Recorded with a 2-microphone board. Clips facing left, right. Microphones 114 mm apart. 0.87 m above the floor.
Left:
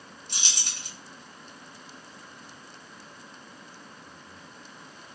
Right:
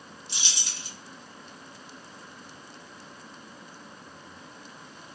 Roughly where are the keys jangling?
Left.